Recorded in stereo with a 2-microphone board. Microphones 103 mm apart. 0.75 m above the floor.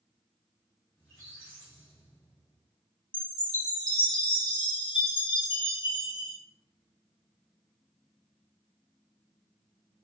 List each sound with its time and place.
1.0 s a squeak: 15° left (ahead or behind), 1.3 m
3.1 s a chime: 45° left (ahead or behind), 1.1 m